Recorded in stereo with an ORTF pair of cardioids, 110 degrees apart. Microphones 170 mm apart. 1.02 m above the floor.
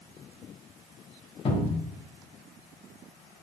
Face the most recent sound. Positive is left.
turn(degrees=35)